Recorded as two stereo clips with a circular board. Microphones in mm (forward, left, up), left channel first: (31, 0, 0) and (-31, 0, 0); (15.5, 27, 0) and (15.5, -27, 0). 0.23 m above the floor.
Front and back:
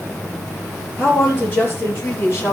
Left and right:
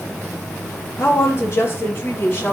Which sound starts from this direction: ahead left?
A woman speaking, at 1.0 s.